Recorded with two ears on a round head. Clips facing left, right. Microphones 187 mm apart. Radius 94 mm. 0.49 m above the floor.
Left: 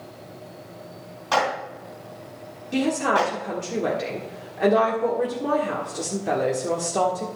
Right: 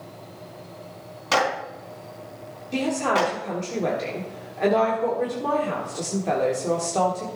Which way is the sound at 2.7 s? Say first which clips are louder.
Left 1 dB; 10° left (ahead or behind).